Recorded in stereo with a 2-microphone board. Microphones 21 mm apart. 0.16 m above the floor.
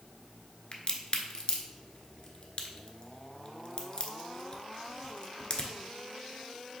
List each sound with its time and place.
0.7 s a crack: 35° left (ahead or behind), 0.7 m